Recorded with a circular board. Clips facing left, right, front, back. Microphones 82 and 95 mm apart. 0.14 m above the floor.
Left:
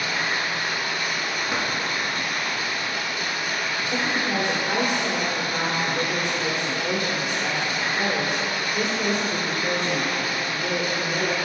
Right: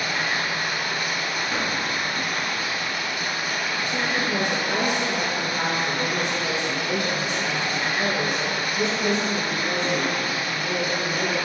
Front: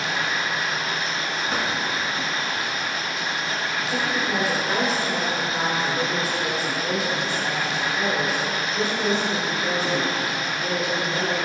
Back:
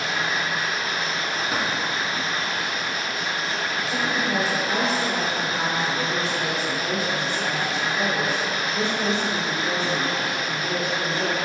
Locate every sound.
0.0 s running water: 125° right, 1.8 m
1.5 s a drawer: 110° left, 0.7 m
3.9 s a woman speaking: 90° left, 1.8 m